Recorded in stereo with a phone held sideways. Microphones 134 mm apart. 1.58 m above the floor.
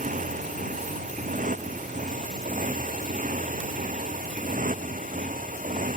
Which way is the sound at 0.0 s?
80° right.